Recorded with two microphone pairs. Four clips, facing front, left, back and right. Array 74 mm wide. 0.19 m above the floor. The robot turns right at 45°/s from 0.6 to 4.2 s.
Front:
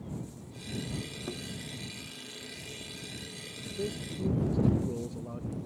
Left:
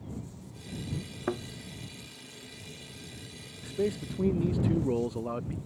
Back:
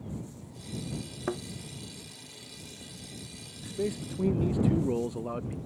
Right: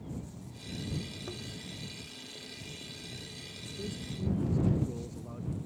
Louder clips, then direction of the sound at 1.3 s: Left 11 dB, back 9 dB; 120° left.